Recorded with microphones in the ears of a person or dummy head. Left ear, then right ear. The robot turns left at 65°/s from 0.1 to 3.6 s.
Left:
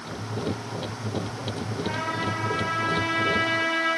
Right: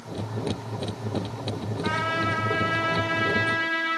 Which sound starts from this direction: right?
A trumpet, at 1.8 s.